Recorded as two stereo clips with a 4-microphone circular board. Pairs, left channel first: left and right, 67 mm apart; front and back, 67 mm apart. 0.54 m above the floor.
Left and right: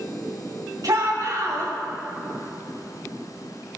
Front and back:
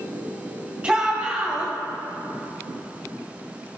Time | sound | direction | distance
0.8 | a shout | 110° right | 3 m